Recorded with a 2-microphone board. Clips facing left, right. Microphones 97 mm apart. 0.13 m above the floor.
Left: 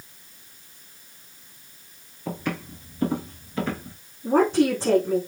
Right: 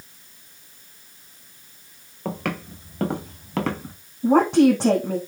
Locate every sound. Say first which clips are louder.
2.2 s footsteps: right 2 dB; 90° right, 5.5 m; by 4.0 s 80° right, 4.5 m
4.2 s a woman speaking: right 4 dB; 80° right, 7 m